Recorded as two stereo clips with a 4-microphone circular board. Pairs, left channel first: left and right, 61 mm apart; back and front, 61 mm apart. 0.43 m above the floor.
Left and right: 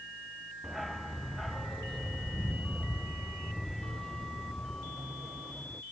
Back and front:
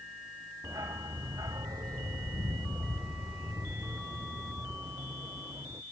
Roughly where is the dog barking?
Ahead.